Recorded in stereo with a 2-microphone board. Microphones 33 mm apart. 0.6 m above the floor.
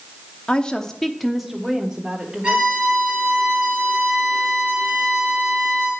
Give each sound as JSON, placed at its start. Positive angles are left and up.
{"t": 0.5, "sound": "a woman speaking", "side_deg": 35, "distance_m": 0.9}
{"t": 2.4, "sound": "a violin", "side_deg": -30, "distance_m": 5.5}